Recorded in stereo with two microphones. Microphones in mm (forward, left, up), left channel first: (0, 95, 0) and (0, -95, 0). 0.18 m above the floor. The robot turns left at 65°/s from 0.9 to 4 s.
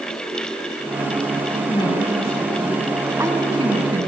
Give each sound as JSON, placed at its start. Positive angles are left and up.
{"t": 1.7, "sound": "a woman speaking", "side_deg": 25, "distance_m": 1.5}